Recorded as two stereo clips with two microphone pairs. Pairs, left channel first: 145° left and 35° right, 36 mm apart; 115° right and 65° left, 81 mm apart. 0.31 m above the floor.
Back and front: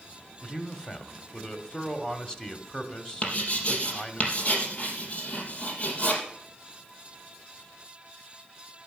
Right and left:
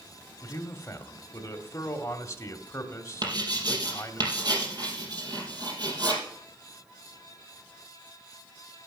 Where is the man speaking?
155° right, 1.6 m.